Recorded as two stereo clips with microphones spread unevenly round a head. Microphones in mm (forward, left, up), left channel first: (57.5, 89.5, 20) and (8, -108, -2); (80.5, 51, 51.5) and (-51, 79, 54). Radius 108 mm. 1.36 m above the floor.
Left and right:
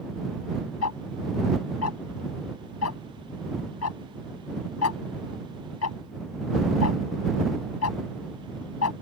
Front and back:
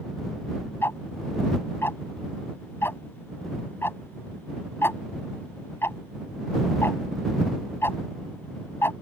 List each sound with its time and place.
0.8 s ticking: 65° left